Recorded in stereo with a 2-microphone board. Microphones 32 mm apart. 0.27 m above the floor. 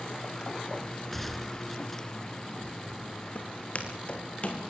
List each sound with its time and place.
1.1 s a gunshot: 5° left (ahead or behind), 1.1 m
3.4 s footsteps: 45° left (ahead or behind), 5.5 m; by 4.6 s 40° left (ahead or behind), 5.5 m